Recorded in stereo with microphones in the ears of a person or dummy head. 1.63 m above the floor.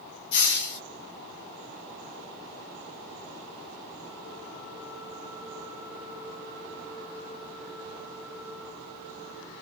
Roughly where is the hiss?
Left.